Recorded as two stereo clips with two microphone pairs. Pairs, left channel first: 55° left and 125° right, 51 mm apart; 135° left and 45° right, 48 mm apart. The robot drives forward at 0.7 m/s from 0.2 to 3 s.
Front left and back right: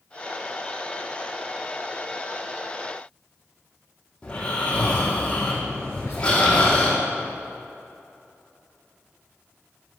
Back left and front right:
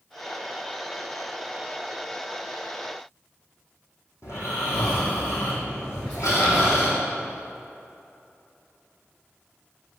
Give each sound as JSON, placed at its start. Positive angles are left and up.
{"t": 4.2, "sound": "snoring", "azimuth_deg": 125, "distance_m": 3.0}
{"t": 5.9, "sound": "whispering", "azimuth_deg": 80, "distance_m": 2.5}